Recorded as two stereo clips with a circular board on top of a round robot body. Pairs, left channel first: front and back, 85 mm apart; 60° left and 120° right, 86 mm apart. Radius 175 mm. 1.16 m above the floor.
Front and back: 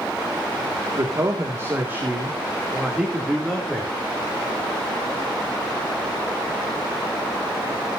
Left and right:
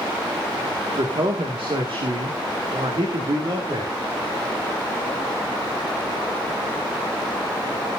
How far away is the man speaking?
About 2 m.